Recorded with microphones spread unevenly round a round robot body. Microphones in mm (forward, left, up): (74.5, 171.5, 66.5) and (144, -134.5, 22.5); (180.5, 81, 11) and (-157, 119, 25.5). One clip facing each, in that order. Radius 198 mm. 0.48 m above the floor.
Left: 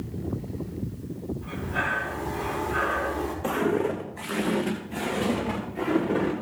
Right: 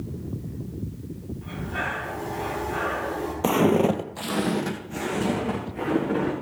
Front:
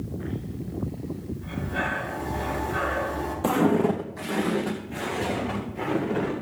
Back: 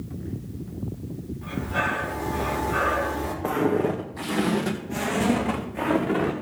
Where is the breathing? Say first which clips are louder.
Left 1 dB, back 4 dB; 140° right, 4.5 m.